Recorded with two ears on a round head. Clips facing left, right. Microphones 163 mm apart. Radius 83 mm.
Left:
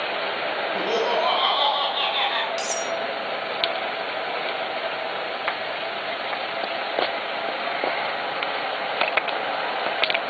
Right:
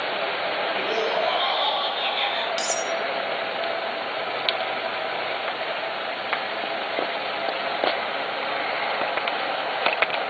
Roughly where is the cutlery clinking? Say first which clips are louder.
Right 1 dB; centre.